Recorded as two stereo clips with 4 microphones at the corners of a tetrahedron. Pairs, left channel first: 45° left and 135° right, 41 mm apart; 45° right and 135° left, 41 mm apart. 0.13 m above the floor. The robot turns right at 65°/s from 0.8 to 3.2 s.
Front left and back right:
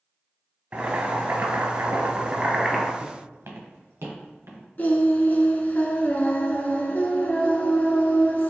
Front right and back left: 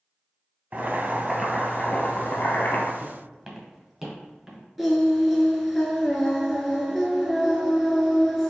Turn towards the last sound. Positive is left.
turn(degrees=50)